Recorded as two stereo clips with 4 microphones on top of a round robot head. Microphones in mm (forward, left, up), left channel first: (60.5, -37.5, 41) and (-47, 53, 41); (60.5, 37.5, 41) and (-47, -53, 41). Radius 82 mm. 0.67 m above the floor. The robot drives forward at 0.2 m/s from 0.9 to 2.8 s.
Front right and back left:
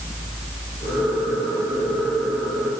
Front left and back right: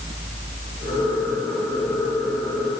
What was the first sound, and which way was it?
Only background noise.